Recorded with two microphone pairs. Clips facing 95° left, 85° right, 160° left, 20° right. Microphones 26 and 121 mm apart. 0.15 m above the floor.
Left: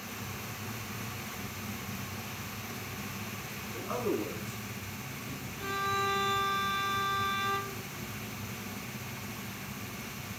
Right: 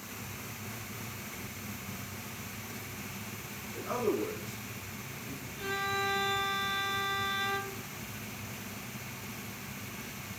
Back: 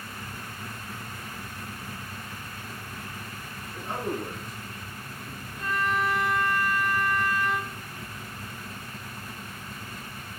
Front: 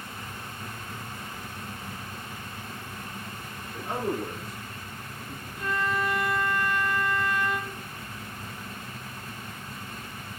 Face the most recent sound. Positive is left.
turn(degrees=-150)